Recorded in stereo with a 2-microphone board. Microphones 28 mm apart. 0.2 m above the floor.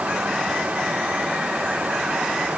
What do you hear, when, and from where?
Only background noise.